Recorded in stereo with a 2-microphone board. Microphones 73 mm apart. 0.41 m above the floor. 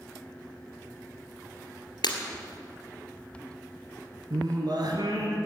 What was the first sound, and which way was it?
Breaking glass, 90° left.